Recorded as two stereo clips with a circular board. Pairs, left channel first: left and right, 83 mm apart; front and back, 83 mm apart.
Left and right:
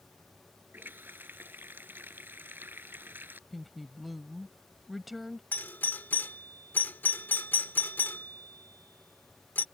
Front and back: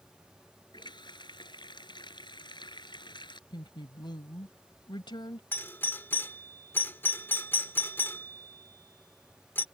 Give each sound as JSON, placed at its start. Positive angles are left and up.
{"t": 0.7, "sound": "a running tap", "azimuth_deg": -25}
{"t": 3.5, "sound": "a woman speaking", "azimuth_deg": 0}
{"t": 5.5, "sound": "a doorbell", "azimuth_deg": 40}